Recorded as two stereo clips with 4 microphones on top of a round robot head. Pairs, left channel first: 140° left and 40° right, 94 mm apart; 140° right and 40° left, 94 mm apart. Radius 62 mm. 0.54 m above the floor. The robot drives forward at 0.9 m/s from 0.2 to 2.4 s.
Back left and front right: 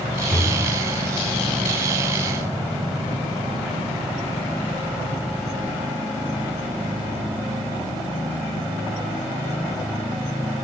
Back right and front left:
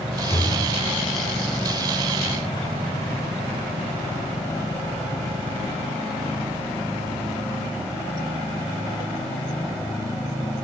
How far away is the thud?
About 5 m.